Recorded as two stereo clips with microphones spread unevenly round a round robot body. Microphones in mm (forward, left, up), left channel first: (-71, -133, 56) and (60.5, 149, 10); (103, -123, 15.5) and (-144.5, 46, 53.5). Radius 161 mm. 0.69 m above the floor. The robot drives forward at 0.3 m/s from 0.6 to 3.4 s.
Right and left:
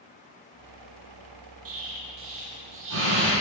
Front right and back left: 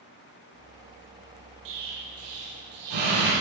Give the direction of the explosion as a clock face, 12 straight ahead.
8 o'clock.